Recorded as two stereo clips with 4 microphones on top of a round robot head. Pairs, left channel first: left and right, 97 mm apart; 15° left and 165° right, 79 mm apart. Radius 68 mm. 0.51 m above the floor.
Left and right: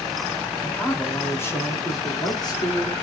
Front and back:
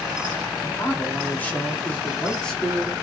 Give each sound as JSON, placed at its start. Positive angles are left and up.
{"t": 0.6, "sound": "a man speaking", "azimuth_deg": 20, "distance_m": 1.3}